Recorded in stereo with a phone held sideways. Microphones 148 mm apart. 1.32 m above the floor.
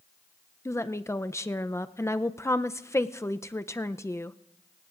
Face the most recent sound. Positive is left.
turn(degrees=20)  # may be behind; listen again after turning